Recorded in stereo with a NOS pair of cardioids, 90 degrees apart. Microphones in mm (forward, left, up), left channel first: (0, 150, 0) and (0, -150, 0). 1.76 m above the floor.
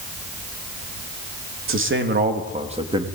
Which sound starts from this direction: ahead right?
A man speaking, at 1.7 s.